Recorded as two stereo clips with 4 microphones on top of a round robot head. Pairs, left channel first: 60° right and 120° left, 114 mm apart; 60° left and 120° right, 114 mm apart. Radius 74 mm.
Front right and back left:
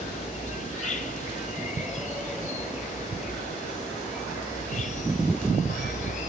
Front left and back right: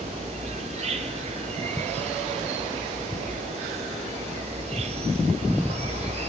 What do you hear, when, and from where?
0.0 s an insect: 85° right, 0.9 m